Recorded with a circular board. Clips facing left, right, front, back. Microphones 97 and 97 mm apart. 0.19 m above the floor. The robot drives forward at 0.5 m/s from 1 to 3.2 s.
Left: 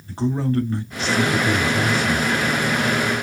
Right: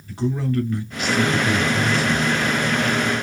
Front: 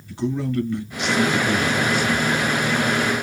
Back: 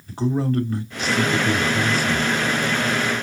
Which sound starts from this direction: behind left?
A man speaking, at 0.1 s.